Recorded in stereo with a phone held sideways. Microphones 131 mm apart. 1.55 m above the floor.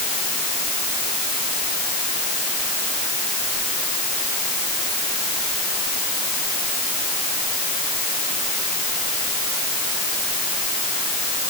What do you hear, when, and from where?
Only background noise.